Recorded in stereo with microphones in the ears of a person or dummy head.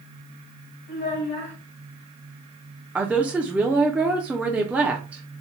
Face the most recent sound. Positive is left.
turn(degrees=-10)  # may be behind; listen again after turning